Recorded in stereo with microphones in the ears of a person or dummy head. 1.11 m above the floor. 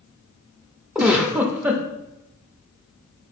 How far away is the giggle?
About 0.6 m.